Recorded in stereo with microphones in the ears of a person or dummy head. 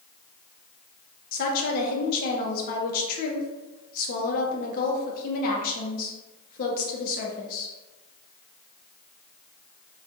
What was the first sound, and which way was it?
A woman speaking, 50° left (ahead or behind).